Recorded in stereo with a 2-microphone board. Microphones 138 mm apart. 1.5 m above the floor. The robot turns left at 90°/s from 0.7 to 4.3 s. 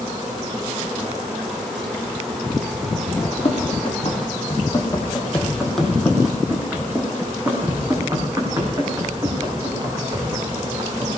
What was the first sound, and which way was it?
Running footsteps, 30° left (ahead or behind).